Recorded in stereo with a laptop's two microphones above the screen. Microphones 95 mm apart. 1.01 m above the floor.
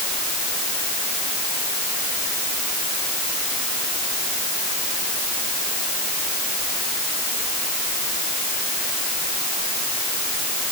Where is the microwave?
No microwave in this recording.